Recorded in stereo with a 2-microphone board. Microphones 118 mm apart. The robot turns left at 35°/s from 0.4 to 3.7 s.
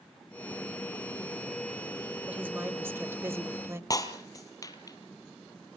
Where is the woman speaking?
15° right (ahead or behind), 0.9 m; by 3.8 s 25° right (ahead or behind), 0.9 m.